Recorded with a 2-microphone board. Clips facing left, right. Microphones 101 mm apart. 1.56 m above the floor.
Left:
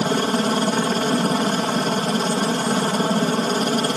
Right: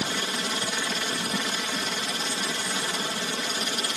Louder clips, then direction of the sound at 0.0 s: Left 11 dB; 45° left (ahead or behind).